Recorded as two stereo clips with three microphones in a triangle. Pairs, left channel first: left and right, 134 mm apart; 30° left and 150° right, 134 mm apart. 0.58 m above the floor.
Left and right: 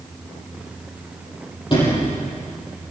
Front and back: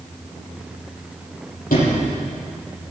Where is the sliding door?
35° left, 6.5 m.